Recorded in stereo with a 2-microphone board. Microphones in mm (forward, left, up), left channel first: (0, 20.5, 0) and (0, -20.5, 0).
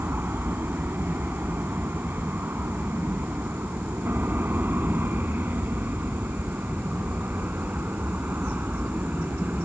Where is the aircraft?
65° right (ahead or behind); by 9.7 s 55° right (ahead or behind).